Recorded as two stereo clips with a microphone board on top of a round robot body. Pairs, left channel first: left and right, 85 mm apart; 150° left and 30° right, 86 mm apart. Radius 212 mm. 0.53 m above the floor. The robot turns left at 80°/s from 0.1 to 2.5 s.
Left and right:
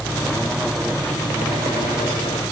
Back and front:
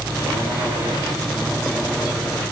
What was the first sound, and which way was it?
Only background noise.